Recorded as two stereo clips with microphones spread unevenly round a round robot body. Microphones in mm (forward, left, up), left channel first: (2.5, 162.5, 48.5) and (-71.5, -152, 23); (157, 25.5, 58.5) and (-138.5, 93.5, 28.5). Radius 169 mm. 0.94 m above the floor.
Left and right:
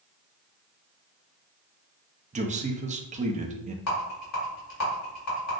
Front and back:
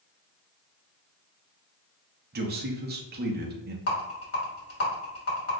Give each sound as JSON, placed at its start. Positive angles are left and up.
{"t": 2.3, "sound": "a man speaking", "azimuth_deg": -160, "distance_m": 0.9}
{"t": 3.9, "sound": "a rattle", "azimuth_deg": 30, "distance_m": 2.5}